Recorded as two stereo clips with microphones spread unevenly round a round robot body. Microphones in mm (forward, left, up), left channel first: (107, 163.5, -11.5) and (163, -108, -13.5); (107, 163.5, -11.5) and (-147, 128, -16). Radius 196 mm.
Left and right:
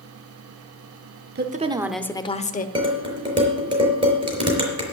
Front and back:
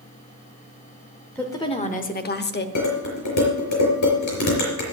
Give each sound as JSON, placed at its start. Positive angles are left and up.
{"t": 1.4, "sound": "a woman speaking", "azimuth_deg": -75, "distance_m": 0.9}
{"t": 2.8, "sound": "dishes clattering", "azimuth_deg": -5, "distance_m": 4.5}